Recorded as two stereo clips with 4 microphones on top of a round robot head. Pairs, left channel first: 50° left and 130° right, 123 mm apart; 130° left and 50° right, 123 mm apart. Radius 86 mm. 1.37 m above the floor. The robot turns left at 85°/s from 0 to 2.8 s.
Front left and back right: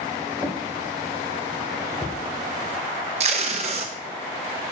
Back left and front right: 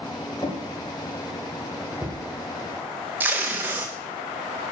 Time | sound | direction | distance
0.4 | a drawer | 165° left | 1.1 m
3.2 | tape being pulled | 120° right | 0.6 m